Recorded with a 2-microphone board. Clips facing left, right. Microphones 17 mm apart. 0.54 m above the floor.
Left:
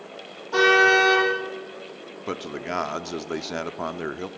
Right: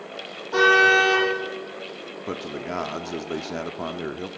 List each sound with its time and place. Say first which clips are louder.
0.5 s a car horn: right 1 dB; 10° left (ahead or behind), 8.5 m
2.3 s a man speaking: left 1 dB; 20° left (ahead or behind), 0.9 m